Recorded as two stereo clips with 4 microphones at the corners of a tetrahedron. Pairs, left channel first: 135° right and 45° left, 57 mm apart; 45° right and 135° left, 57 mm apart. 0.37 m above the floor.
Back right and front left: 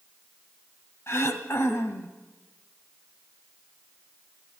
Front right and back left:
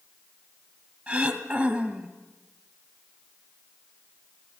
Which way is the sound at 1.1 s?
155° right.